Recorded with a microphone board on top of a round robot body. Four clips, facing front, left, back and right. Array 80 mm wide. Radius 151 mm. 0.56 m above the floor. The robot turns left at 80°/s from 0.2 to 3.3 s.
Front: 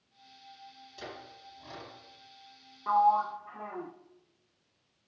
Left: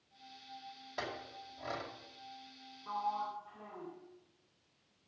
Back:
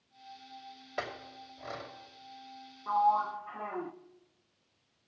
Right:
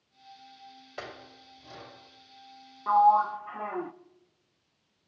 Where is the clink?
165° right, 2 m; by 1.9 s 120° left, 2 m.